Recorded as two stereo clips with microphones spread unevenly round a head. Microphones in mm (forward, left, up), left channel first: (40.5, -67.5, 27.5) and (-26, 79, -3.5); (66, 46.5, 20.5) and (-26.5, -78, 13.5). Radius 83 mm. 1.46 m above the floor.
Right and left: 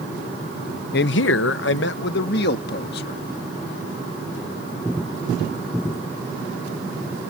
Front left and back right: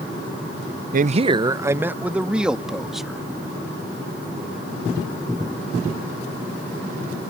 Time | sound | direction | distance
0.9 | a man speaking | 95° right | ?